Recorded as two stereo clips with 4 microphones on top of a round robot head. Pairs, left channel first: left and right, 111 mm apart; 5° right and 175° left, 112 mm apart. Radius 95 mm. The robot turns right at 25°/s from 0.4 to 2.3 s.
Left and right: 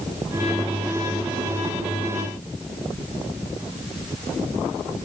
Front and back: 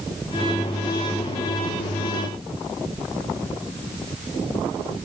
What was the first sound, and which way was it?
Only background noise.